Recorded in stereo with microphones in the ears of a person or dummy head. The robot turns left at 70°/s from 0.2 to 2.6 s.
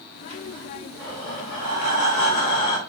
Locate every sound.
1.0 s breathing: 165° left, 1.9 m; by 2.8 s 55° left, 1.9 m